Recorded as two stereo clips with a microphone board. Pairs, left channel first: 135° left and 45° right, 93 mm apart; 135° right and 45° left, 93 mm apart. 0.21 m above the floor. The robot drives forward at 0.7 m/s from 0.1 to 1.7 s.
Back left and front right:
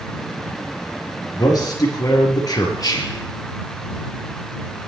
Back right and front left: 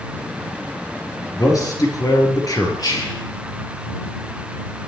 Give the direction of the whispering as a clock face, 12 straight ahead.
6 o'clock.